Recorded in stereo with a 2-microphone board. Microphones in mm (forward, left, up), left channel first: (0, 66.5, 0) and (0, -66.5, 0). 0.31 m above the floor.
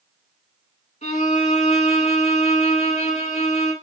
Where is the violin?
65° left (ahead or behind), 1.2 m.